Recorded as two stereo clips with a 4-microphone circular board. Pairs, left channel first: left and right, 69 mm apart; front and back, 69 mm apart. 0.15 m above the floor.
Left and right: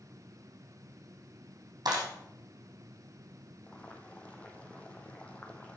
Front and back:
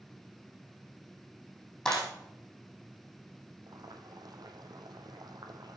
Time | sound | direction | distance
1.9 | a clap | 80° right | 5 m
3.7 | boiling | 165° left | 1.3 m